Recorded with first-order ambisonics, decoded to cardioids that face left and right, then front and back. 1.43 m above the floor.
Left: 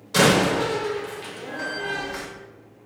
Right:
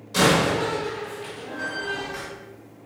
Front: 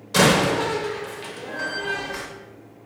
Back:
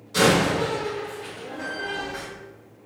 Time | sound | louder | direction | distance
0.1 | a door slam | left 1 dB, front 2 dB | 35° left | 0.8 m